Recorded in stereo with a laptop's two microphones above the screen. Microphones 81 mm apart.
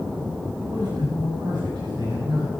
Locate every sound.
0.6 s a man speaking: 85° right, 5.5 m